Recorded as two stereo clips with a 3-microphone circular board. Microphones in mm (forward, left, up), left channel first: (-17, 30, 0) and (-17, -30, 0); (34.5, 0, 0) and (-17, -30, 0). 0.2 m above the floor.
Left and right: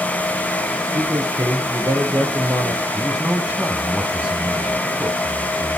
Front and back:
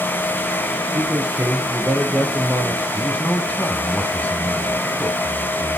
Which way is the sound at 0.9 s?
95° right.